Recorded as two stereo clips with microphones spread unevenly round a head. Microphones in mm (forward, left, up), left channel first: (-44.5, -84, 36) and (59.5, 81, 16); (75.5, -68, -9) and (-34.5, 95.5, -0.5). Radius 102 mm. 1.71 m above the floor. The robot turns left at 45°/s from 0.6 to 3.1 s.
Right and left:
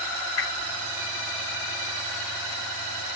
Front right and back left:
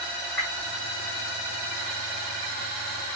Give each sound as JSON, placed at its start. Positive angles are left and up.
{"t": 0.4, "sound": "a whoosh", "azimuth_deg": -140, "distance_m": 2.0}